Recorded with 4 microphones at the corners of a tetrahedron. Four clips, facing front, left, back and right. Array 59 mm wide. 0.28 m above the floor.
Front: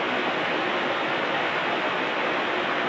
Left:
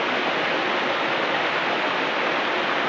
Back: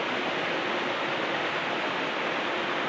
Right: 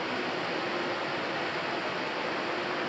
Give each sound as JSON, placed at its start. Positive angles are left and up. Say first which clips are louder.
{"t": 0.0, "sound": "running water", "louder": "left 9 dB, front 4 dB", "azimuth_deg": 75, "distance_m": 3.5}